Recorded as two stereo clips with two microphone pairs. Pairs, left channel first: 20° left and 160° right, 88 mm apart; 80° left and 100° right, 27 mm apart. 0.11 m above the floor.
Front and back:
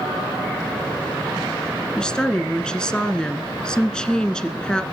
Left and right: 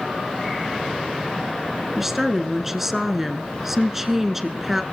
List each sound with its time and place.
2.0 s a woman speaking: 45° right, 1.1 m